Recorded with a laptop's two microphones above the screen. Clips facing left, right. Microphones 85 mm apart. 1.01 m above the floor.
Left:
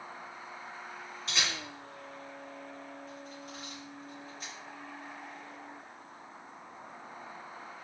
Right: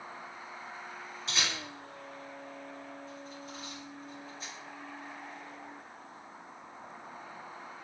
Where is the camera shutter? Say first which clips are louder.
Even; centre (ahead or behind), 1.7 m.